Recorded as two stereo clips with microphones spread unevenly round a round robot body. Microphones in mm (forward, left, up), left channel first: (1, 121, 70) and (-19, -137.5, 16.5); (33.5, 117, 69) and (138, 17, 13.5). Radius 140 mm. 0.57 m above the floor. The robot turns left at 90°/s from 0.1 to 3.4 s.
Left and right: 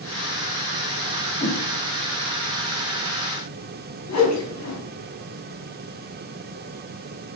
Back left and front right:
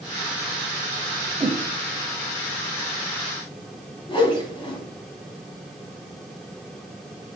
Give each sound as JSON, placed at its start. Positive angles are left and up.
{"t": 1.4, "sound": "a whoosh", "azimuth_deg": 30, "distance_m": 0.6}
{"t": 4.1, "sound": "a whoosh", "azimuth_deg": 70, "distance_m": 1.5}